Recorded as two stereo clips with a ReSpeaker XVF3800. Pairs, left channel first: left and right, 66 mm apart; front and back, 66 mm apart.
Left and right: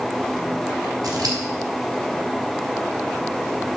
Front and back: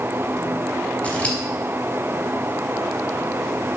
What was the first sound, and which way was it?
Scissors, 70° right.